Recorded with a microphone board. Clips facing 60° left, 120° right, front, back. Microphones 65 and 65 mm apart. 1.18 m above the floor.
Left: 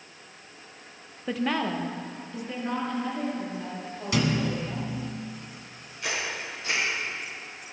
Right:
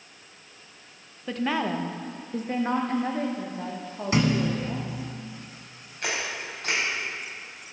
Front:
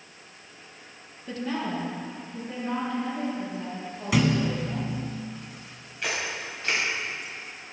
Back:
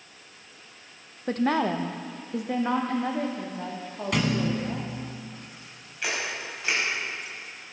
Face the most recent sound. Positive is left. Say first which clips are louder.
# right 1 dB, even
turn(degrees=-95)